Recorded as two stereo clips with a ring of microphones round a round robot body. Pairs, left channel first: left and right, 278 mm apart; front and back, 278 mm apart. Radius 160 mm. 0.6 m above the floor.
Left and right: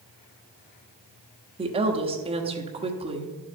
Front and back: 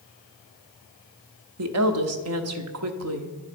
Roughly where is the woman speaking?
Behind.